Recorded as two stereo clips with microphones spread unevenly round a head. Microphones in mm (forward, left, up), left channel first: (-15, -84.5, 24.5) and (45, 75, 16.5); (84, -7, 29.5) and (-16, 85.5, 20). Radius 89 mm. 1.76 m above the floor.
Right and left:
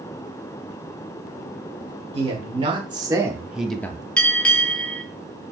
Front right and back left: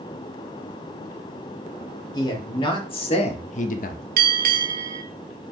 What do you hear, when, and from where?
2.1 s a man speaking: 15° left, 1.5 m; by 4.1 s 45° right, 0.6 m
4.2 s a bell: 165° left, 0.6 m